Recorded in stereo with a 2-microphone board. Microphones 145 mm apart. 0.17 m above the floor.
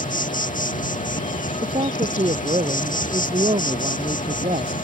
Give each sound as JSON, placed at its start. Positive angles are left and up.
{"t": 0.0, "sound": "an insect", "side_deg": 65}
{"t": 1.6, "sound": "a man speaking", "side_deg": -45}